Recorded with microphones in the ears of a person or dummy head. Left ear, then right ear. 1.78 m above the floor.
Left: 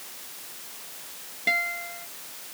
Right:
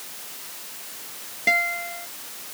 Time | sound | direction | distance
1.5 | a guitar | 5° right (ahead or behind) | ?